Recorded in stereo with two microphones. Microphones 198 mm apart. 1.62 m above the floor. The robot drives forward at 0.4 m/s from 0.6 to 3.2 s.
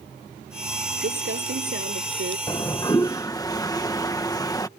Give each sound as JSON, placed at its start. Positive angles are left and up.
{"t": 1.0, "sound": "crumpling", "side_deg": -85}
{"t": 2.5, "sound": "a toilet flushing", "side_deg": 20}